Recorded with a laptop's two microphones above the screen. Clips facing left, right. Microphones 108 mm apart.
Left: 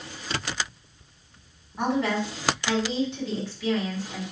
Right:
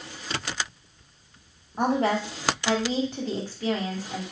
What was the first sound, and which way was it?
A woman speaking, 45° right (ahead or behind).